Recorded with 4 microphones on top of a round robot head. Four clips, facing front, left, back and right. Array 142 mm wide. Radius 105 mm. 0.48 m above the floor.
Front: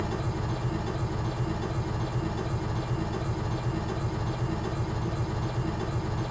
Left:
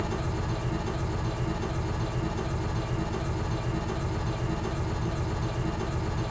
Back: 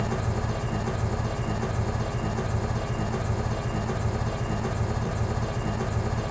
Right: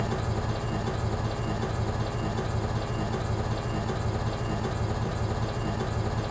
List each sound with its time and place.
0.0 s an engine running: 145° right, 0.9 m